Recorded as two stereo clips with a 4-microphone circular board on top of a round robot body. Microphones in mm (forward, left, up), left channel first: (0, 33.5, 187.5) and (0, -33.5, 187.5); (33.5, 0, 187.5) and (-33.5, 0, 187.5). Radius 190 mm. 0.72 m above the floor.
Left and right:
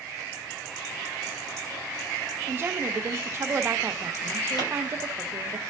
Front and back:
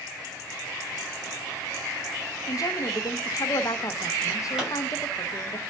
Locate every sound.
2.5 s a woman speaking: 35° right, 1.1 m
4.6 s a pop: 100° left, 6 m